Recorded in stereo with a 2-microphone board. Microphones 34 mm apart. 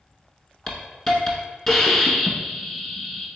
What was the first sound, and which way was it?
A hiss, 20° left (ahead or behind).